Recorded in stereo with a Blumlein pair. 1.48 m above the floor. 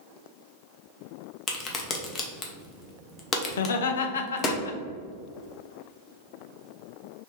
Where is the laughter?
65° left, 0.5 m.